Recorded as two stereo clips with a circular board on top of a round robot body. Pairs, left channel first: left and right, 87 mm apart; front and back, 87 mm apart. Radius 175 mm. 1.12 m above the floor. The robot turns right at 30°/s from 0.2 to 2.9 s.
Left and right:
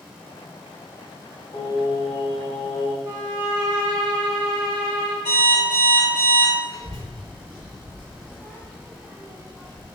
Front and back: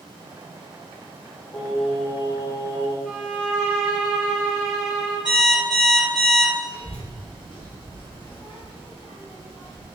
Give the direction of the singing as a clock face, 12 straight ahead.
11 o'clock.